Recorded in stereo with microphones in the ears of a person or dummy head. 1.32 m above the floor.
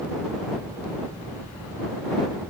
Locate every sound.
Only background noise.